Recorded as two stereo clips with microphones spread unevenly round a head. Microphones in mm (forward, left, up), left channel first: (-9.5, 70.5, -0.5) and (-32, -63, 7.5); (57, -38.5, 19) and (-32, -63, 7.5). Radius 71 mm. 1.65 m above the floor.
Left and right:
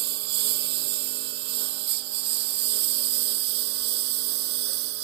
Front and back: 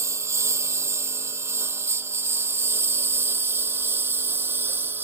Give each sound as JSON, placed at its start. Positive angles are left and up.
{"t": 0.0, "sound": "a lawn mower", "azimuth_deg": -105}